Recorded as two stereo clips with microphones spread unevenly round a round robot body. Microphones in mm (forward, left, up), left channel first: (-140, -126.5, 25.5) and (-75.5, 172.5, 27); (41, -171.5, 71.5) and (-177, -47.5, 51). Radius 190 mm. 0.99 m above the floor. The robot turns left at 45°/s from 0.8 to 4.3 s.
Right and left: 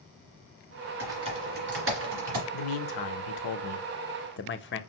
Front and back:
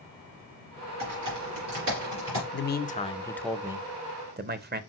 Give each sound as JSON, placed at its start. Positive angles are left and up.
{"t": 1.0, "sound": "typing on a keyboard", "azimuth_deg": 160, "distance_m": 2.5}
{"t": 2.5, "sound": "a man speaking", "azimuth_deg": -75, "distance_m": 0.8}